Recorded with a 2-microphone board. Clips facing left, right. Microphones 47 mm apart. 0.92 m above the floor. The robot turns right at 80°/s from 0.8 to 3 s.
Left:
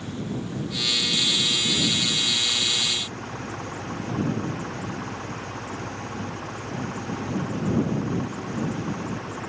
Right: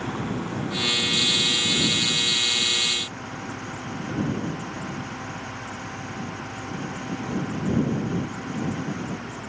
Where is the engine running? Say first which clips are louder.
Right 3 dB; 80° right; by 9.5 s 95° left.